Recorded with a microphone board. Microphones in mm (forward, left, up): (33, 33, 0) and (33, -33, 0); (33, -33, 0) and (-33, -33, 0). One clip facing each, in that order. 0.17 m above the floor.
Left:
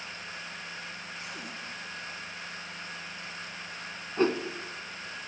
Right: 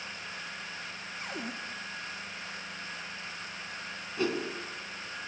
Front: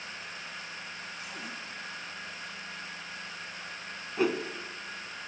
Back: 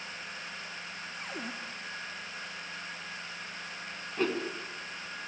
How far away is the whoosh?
About 1.9 m.